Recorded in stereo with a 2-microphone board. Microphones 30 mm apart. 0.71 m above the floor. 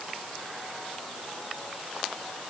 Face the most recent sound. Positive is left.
No sound to turn to.